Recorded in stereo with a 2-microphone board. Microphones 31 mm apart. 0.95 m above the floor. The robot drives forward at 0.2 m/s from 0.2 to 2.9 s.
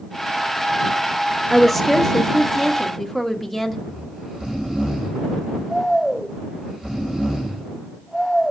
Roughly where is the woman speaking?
Centre.